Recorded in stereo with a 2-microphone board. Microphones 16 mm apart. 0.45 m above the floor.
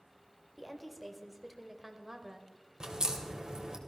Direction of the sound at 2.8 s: 50° right (ahead or behind).